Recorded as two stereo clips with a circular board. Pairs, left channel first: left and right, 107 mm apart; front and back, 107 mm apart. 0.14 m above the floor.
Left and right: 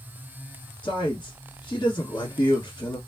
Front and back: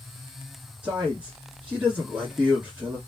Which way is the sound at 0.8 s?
105° left.